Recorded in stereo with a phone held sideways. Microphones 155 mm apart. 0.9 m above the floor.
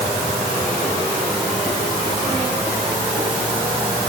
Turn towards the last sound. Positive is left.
No sound to turn to.